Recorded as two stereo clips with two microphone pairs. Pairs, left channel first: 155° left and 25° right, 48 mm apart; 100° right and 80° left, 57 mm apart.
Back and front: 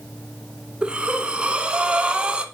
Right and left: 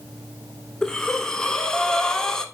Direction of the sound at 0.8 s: 45° right.